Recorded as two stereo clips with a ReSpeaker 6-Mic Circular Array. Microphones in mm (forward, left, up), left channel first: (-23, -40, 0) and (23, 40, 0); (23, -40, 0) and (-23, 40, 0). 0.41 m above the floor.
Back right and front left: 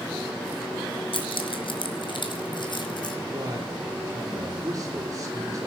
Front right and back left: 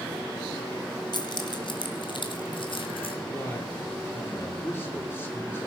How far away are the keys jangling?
About 2.5 m.